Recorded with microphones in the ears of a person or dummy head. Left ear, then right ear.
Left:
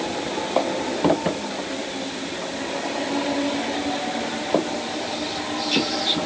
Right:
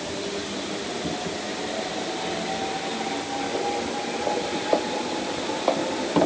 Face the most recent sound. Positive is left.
No sound to turn to.